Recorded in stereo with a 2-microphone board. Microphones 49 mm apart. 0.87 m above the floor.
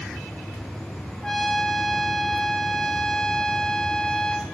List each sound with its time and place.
1.2 s a trumpet: 10° left (ahead or behind), 0.8 m